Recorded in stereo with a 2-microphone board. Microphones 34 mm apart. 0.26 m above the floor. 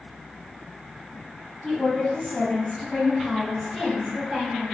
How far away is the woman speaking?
About 2.0 m.